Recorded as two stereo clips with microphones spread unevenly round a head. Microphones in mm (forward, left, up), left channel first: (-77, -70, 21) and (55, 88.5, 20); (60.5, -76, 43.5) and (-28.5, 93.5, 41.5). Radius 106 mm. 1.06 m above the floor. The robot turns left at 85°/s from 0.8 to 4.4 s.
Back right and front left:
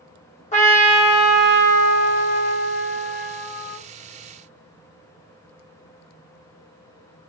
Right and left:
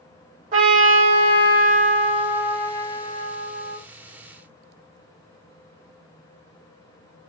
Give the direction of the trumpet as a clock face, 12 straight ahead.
6 o'clock.